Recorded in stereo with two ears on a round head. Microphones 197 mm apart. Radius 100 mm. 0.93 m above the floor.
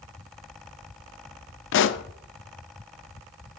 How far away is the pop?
About 0.6 m.